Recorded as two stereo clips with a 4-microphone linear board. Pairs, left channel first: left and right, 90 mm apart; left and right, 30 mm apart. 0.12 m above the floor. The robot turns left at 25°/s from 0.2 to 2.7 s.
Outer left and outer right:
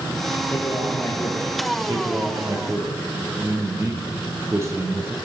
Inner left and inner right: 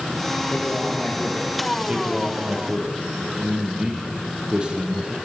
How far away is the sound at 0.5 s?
About 5 m.